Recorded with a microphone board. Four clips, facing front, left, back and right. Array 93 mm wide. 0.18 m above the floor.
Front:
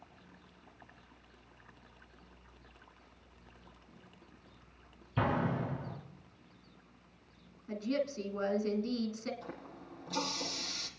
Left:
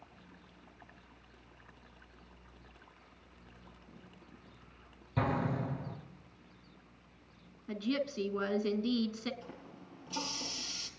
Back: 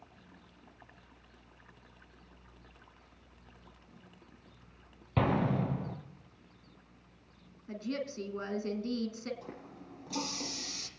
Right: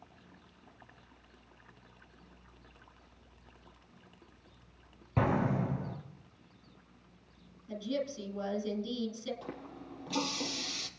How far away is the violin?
No violin in this recording.